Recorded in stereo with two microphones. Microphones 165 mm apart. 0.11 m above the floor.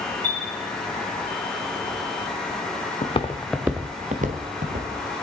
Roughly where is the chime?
Left.